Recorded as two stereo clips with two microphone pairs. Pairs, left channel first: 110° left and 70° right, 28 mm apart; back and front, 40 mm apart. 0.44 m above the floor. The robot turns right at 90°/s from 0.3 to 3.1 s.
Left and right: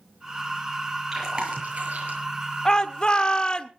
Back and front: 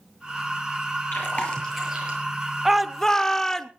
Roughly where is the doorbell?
I don't hear a doorbell.